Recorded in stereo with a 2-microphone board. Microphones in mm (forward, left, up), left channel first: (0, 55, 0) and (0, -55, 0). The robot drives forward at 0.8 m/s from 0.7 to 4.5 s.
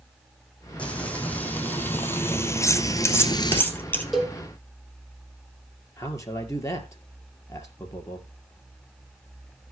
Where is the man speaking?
25° left (ahead or behind), 2.5 m.